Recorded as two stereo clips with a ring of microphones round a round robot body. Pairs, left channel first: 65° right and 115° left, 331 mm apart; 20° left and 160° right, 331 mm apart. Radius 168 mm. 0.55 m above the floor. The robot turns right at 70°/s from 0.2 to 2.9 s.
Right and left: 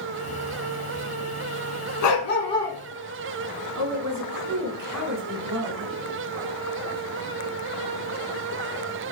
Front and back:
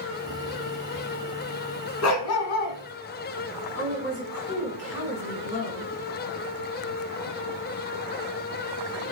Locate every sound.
2.0 s a dog barking: 25° right, 1.9 m; by 2.8 s 25° left, 1.9 m
3.8 s a woman speaking: 75° left, 4.5 m